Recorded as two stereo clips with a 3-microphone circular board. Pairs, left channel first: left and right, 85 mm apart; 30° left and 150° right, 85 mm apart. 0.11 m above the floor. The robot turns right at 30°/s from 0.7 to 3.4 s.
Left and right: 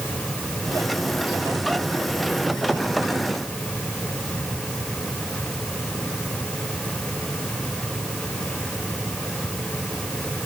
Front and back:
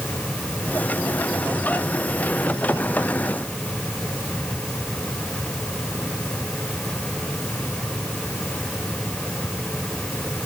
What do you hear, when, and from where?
Only background noise.